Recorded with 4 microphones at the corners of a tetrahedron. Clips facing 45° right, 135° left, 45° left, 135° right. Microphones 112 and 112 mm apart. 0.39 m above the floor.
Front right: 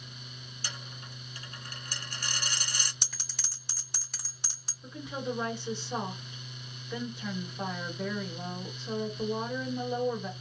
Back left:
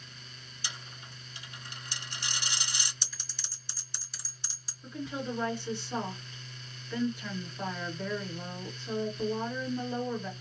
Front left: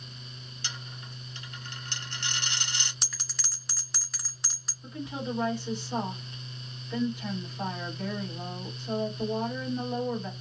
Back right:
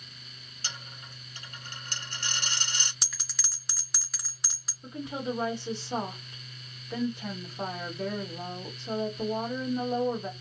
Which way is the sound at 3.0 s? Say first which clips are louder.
Front right 2 dB, front left 1 dB; 45° right.